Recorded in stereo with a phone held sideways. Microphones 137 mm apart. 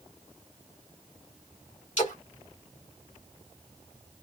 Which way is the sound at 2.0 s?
65° left (ahead or behind).